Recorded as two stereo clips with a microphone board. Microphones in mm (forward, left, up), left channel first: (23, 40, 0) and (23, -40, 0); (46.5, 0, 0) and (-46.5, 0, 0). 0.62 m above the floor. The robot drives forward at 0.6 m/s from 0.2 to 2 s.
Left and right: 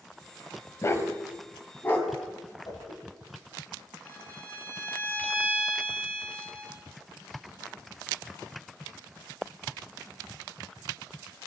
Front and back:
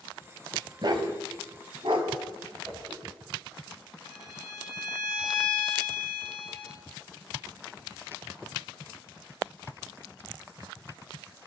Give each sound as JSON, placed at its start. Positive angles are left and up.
{"t": 0.8, "sound": "a dog barking", "azimuth_deg": 145, "distance_m": 1.2}
{"t": 2.6, "sound": "a whoosh", "azimuth_deg": 130, "distance_m": 5.0}
{"t": 4.0, "sound": "a violin", "azimuth_deg": 30, "distance_m": 1.9}